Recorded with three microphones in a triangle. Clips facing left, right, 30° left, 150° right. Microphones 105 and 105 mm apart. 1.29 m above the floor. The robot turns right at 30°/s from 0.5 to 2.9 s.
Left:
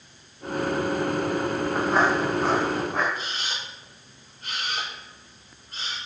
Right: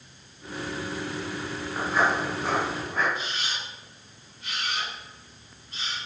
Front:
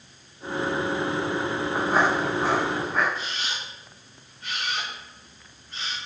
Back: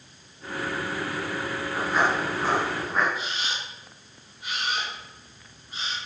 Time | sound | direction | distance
1.8 | footsteps | 70° left | 5 m
3.1 | a camera shutter | 130° left | 6 m